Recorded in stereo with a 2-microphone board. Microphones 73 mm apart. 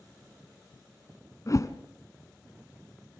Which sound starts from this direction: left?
A whoosh, at 1.5 s.